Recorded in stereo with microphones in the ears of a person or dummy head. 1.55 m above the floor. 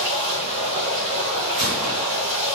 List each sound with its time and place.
0.0 s running water: 45° right (ahead or behind), 1.1 m
1.5 s a gunshot: 45° right (ahead or behind), 0.9 m